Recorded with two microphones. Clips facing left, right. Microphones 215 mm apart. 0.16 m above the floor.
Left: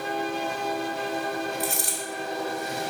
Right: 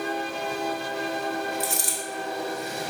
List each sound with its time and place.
1.6 s a dropped coin: 65° left (ahead or behind), 0.7 m